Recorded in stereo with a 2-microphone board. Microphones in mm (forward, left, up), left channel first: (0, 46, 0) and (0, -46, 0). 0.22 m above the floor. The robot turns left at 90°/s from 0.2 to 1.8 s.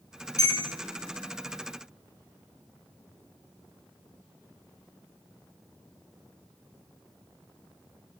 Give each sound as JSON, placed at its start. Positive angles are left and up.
{"t": 0.4, "sound": "a bell", "azimuth_deg": 45, "distance_m": 0.9}